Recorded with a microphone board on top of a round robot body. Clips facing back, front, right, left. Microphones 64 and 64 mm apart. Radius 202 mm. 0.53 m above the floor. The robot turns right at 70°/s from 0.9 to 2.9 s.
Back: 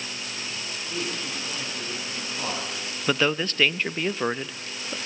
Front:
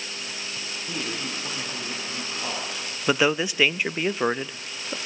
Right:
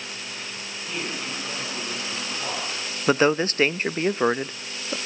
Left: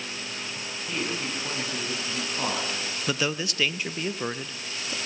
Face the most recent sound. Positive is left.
turn(degrees=-75)